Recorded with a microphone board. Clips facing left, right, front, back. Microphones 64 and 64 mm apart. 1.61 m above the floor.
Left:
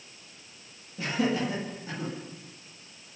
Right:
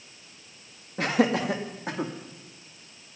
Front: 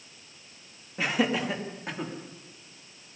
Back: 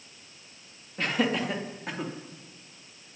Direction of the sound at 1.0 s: 85° right.